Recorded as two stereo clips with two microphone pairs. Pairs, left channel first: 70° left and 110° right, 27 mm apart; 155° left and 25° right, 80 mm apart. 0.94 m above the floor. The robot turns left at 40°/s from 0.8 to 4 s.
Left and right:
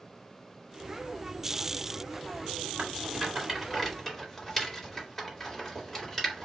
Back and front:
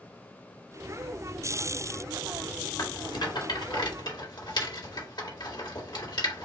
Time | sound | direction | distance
2.8 | a rattle | 165° right | 2 m